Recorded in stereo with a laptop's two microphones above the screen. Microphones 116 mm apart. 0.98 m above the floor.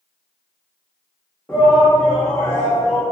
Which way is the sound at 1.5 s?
20° left (ahead or behind).